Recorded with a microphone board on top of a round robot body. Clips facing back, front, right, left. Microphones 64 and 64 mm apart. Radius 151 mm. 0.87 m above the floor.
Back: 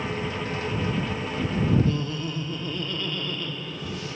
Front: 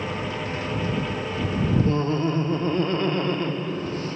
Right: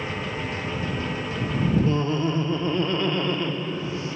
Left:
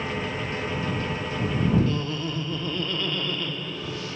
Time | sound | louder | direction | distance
1.9 | laughter | front 6 dB, right 5 dB | 35° right | ?